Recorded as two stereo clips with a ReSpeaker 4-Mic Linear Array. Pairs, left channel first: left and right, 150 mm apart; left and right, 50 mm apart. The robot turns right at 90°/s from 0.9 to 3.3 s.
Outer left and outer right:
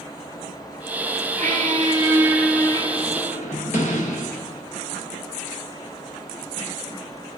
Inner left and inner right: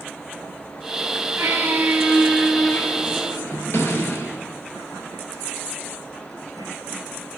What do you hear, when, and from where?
1.4 s a squeak: 95° right, 0.7 m; by 4.7 s 80° left, 0.7 m